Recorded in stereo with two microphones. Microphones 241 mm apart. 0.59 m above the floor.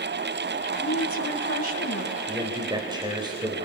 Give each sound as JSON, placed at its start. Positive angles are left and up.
{"t": 0.8, "sound": "a woman speaking", "side_deg": 70, "distance_m": 4.0}
{"t": 2.3, "sound": "a man speaking", "side_deg": -20, "distance_m": 3.0}